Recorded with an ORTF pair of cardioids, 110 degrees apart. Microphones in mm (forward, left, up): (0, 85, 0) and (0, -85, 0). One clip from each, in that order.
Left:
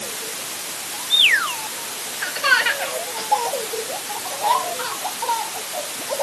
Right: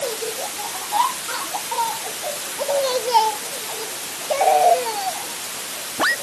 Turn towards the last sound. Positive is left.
No sound to turn to.